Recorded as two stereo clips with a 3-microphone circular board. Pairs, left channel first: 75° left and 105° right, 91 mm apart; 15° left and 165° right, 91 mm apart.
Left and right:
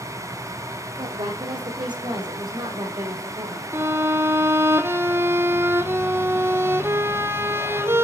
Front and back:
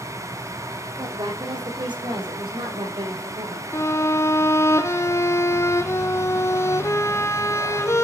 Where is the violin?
45° right, 0.8 m.